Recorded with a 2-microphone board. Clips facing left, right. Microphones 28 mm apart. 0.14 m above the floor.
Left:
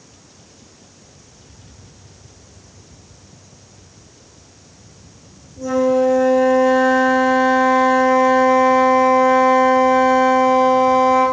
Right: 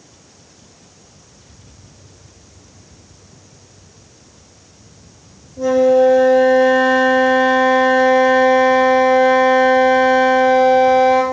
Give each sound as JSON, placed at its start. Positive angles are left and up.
{"t": 5.6, "sound": "a flute", "side_deg": -55, "distance_m": 4.5}